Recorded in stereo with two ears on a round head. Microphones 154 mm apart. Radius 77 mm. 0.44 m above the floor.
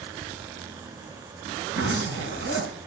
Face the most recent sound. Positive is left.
turn(degrees=-75)  # may be behind; listen again after turning